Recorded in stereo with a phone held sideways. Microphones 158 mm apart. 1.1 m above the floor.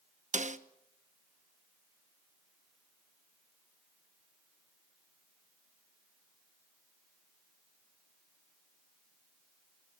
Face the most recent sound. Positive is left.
turn(degrees=-50)  # may be behind; listen again after turning